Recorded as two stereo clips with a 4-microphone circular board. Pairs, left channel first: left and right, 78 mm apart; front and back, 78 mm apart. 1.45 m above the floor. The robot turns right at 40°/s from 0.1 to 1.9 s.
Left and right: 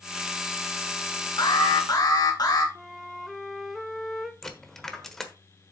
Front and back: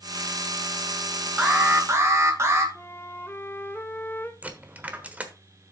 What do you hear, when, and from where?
1.4 s an alarm: 105° left, 1.8 m; by 2.6 s 125° left, 1.8 m
2.8 s a flute: straight ahead, 0.7 m
4.4 s a dropped coin: 165° left, 1.2 m